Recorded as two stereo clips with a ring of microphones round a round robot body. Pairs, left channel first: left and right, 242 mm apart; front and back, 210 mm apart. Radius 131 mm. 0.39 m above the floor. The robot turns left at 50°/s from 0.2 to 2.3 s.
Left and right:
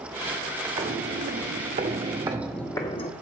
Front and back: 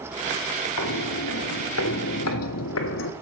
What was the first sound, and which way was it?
Footsteps, 15° right.